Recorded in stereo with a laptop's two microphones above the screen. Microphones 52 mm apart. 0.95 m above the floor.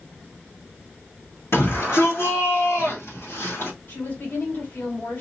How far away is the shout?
About 1.4 m.